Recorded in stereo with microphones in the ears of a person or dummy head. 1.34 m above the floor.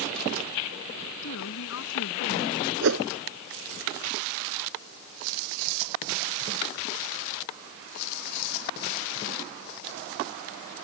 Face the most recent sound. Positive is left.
turn(degrees=-75)  # may be behind; listen again after turning